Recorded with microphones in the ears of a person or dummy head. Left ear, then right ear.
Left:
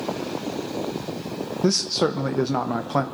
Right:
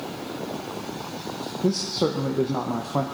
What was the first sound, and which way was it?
A man speaking, 55° left (ahead or behind).